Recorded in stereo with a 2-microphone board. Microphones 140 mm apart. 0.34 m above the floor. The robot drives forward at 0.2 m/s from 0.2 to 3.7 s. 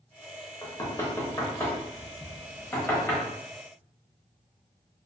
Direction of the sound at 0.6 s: 25° left (ahead or behind).